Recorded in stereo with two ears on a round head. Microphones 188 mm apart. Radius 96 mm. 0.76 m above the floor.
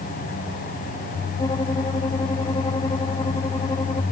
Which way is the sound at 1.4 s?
20° left (ahead or behind).